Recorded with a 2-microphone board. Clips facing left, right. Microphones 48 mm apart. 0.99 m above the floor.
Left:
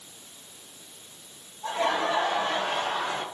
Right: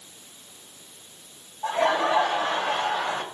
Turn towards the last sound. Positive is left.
turn(degrees=-50)  # may be behind; listen again after turning